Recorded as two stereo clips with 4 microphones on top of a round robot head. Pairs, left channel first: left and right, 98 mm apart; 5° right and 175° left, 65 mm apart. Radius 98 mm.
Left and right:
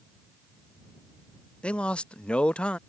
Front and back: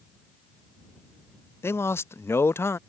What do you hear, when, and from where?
1.6 s a man speaking: 15° left